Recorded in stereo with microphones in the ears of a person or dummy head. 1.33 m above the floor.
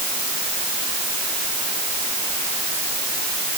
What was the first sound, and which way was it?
Only background noise.